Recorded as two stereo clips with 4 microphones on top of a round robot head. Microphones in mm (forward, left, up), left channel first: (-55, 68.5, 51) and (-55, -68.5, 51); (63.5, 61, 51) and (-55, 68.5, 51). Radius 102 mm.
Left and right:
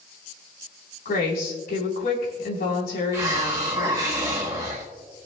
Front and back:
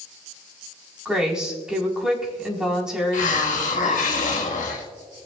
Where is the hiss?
15° right, 1.4 m.